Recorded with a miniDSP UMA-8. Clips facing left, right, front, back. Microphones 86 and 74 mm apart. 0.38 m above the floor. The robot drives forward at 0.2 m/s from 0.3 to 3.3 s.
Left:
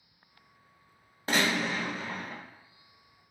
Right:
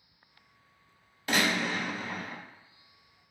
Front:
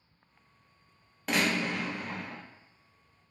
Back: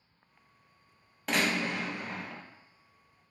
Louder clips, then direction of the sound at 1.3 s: Even, front 1 dB; 90° left.